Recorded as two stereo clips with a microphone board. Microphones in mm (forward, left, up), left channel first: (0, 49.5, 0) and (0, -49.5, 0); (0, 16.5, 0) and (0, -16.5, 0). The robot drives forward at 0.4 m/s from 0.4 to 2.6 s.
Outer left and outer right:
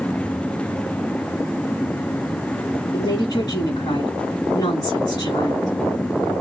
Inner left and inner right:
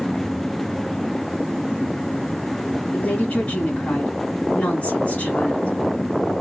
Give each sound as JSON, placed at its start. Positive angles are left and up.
{"t": 2.9, "sound": "a woman speaking", "side_deg": 40, "distance_m": 3.0}